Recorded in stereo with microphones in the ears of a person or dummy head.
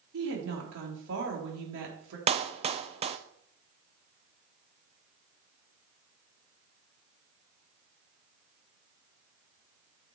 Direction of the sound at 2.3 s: 25° right (ahead or behind).